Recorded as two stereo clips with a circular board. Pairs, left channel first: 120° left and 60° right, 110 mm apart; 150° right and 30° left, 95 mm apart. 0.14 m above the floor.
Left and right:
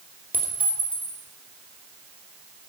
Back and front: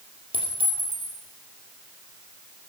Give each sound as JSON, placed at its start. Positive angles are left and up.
{"t": 0.3, "sound": "a clink", "azimuth_deg": 15, "distance_m": 2.5}